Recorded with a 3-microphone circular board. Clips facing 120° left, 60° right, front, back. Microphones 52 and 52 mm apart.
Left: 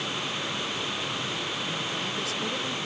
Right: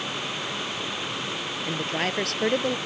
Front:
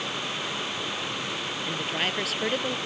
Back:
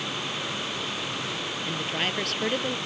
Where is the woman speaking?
85° right.